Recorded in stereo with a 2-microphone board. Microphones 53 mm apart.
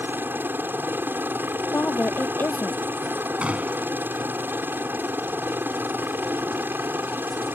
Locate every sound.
0.0 s a helicopter: 40° right (ahead or behind)
1.7 s a woman speaking: 40° left (ahead or behind)
3.4 s a gunshot: 25° right (ahead or behind)